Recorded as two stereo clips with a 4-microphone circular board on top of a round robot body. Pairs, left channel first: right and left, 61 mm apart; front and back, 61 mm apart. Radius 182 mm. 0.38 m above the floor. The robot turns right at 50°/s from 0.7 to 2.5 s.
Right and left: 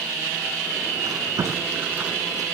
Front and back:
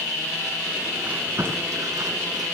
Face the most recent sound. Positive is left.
turn(degrees=180)